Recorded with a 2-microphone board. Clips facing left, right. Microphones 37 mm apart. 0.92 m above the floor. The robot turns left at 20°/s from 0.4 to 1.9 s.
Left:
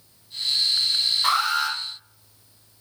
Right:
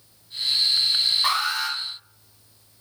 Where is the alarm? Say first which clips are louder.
Left 2 dB; 10° right (ahead or behind), 1.8 m; by 1.8 s 5° right (ahead or behind), 1.8 m.